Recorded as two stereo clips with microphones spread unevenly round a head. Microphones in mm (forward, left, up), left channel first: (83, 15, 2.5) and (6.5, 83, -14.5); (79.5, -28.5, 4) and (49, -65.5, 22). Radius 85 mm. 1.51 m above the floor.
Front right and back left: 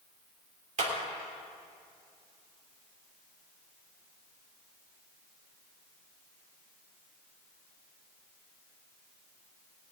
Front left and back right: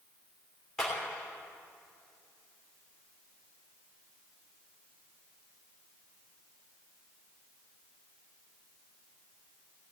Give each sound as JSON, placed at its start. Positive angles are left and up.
{"t": 0.8, "sound": "a clap", "azimuth_deg": 145, "distance_m": 3.0}